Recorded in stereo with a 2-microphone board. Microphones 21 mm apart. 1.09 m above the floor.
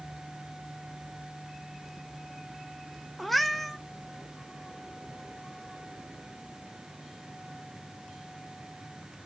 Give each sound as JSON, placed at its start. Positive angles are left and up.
{"t": 3.2, "sound": "a cat meowing", "side_deg": 5, "distance_m": 0.6}